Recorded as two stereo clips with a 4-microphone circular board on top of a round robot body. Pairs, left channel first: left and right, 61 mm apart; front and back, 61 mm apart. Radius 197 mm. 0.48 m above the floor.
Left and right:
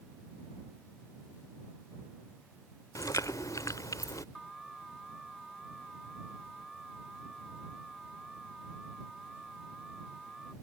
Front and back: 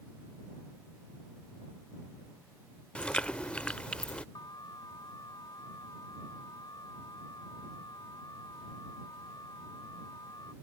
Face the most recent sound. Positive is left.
turn(degrees=0)